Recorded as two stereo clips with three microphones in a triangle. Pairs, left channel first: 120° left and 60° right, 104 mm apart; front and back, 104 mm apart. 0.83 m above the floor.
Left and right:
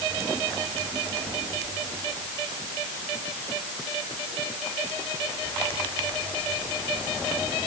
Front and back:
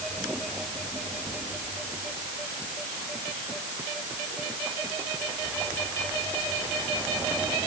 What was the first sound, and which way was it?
Only background noise.